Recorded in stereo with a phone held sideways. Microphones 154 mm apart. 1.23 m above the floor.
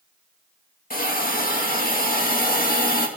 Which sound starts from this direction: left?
A hiss, at 0.9 s.